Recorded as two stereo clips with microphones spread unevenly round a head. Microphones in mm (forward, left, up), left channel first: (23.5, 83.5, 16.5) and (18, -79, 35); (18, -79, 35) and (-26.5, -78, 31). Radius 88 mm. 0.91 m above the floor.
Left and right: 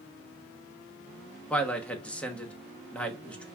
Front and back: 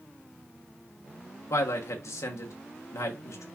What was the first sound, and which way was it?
A man speaking, 10° left.